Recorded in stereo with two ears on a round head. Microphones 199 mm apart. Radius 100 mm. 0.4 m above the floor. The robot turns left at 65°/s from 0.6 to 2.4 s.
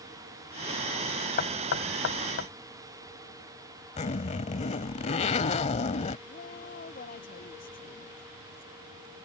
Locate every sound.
1.4 s knocking: 45° left (ahead or behind); by 2.5 s 55° left (ahead or behind)
4.0 s a zipper: 30° left (ahead or behind)
6.3 s a woman speaking: 40° left (ahead or behind)